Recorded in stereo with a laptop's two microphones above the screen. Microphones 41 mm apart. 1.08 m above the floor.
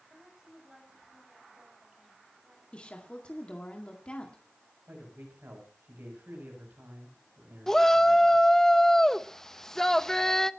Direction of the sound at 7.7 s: 10° left (ahead or behind).